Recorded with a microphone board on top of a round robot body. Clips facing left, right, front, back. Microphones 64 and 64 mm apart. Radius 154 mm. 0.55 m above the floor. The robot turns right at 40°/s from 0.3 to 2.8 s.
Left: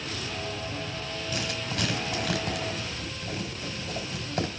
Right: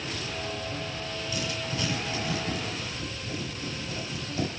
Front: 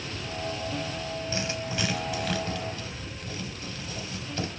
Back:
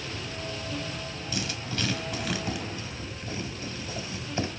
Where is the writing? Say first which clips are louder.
Left 1 dB, even; 55° left, 3.5 m; by 4.5 s 115° left, 3.5 m.